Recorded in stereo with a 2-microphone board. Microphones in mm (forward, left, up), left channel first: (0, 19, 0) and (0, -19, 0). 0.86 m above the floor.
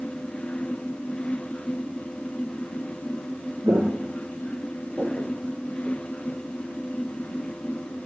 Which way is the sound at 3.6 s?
50° right (ahead or behind).